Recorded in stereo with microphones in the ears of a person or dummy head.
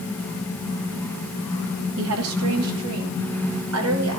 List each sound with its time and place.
2.0 s a woman speaking: 80° right, 3 m